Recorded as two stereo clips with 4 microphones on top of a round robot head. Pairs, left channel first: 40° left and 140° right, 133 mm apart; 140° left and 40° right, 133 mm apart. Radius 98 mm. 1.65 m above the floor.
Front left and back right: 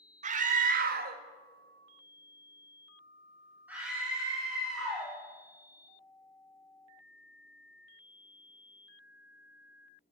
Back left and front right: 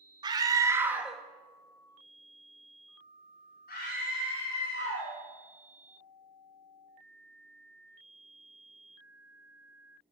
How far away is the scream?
About 1.1 m.